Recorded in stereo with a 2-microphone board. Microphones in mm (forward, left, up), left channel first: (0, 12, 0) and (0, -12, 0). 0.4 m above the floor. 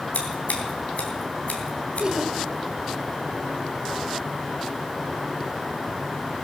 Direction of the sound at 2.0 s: 30° right (ahead or behind).